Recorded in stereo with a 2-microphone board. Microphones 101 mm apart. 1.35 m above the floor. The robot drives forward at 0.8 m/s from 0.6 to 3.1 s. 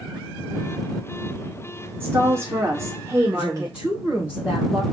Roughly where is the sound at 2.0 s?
Right.